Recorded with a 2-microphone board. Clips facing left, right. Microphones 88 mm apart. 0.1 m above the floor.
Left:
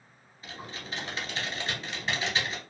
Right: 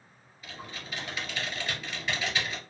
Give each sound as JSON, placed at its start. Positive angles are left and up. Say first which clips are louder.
{"t": 0.4, "sound": "typing on a keyboard", "louder": "left 1 dB", "side_deg": 30, "distance_m": 1.2}